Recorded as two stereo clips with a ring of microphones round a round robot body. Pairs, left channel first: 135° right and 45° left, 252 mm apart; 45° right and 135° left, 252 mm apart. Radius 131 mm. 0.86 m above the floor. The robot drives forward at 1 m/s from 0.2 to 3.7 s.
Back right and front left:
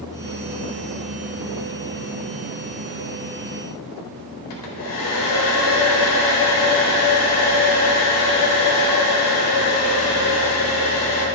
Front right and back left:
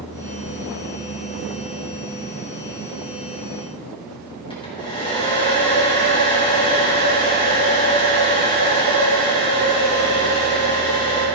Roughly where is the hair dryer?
Behind right.